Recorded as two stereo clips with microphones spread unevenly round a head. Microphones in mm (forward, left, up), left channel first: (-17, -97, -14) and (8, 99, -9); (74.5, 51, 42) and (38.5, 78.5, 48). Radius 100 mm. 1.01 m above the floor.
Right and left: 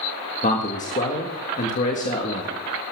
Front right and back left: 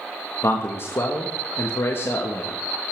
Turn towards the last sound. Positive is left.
turn(degrees=-45)